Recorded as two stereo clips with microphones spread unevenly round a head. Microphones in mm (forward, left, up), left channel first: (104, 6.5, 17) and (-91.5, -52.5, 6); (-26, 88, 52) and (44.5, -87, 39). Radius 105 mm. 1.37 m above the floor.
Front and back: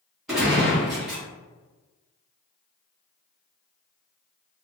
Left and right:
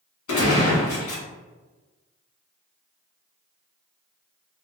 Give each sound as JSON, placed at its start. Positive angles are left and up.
{"t": 0.3, "sound": "a gunshot", "azimuth_deg": 110, "distance_m": 1.6}